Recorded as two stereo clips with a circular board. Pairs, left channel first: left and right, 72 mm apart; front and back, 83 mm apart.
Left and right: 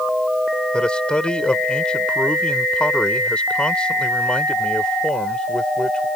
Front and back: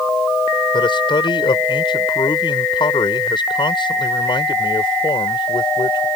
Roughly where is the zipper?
No zipper in this recording.